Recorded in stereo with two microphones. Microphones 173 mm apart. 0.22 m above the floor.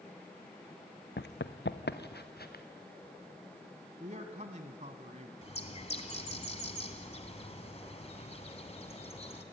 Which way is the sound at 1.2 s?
70° left (ahead or behind).